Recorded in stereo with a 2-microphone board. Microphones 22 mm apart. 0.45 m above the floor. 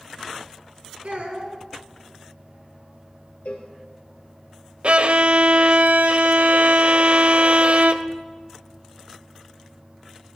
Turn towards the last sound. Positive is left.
turn(degrees=-60)  # may be behind; listen again after turning